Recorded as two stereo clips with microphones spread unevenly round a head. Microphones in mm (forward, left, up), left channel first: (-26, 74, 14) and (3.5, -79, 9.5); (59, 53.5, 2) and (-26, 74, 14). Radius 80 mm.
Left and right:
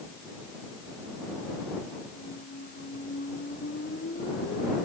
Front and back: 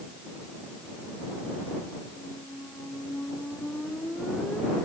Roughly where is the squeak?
Ahead left.